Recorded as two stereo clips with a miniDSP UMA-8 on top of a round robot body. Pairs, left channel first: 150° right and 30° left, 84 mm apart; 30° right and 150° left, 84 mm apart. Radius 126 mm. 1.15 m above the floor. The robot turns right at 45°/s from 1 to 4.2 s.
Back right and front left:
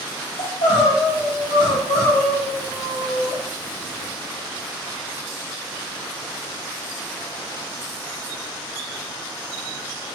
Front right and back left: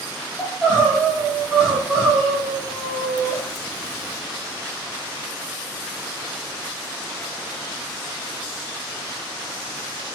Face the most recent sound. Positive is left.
turn(degrees=-5)